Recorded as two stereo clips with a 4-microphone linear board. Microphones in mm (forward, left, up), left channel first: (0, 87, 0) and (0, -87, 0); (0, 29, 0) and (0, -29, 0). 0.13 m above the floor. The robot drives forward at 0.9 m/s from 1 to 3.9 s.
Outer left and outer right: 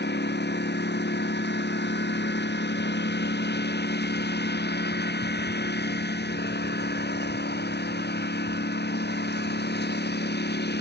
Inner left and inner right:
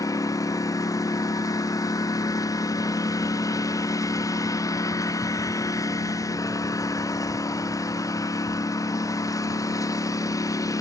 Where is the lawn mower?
80° left; by 10.8 s 75° left (ahead or behind).